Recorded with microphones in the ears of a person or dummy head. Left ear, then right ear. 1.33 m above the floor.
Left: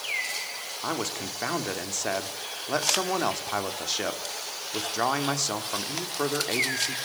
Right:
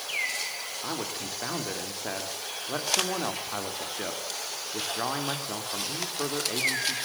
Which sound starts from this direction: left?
A man speaking, at 0.8 s.